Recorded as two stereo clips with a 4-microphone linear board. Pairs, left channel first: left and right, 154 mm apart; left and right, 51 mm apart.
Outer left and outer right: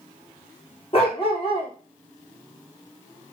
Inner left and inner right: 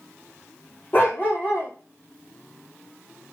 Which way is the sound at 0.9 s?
40° left (ahead or behind).